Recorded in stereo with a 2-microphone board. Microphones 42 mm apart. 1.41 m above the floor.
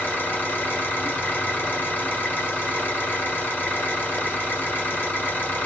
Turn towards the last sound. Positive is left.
turn(degrees=55)  # may be behind; listen again after turning